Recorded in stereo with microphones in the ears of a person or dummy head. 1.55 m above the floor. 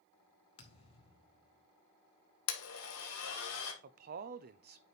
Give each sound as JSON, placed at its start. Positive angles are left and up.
{"t": 0.6, "sound": "a thud", "side_deg": 30, "distance_m": 1.5}
{"t": 2.5, "sound": "a blender", "side_deg": 80, "distance_m": 1.7}
{"t": 3.8, "sound": "a man speaking", "side_deg": -45, "distance_m": 0.5}